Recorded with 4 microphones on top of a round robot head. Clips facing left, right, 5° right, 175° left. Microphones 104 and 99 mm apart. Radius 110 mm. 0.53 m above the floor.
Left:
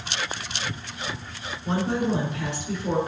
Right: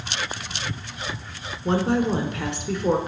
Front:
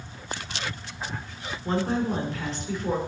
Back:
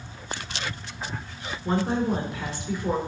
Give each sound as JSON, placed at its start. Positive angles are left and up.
{"t": 1.6, "sound": "a woman speaking", "azimuth_deg": -100, "distance_m": 2.0}